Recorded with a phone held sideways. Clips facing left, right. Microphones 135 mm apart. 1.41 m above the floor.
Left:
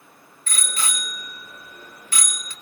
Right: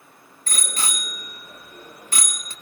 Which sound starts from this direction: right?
A bicycle bell, at 0.5 s.